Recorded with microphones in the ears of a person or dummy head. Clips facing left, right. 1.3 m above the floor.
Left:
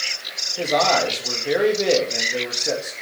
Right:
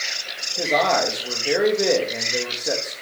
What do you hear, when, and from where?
0.6 s a man speaking: 10° right (ahead or behind), 2 m